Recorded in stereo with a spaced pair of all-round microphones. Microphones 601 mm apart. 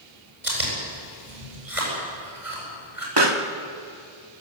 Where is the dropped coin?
No dropped coin in this recording.